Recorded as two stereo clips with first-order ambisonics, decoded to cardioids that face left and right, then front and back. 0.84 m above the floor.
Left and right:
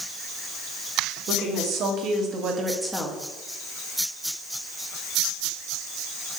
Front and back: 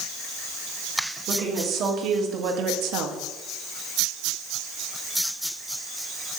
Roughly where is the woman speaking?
Behind right.